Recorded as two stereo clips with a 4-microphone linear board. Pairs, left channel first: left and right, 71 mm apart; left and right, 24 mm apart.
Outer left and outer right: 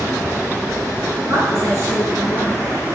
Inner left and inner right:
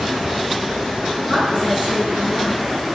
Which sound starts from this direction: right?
A woman speaking, at 1.3 s.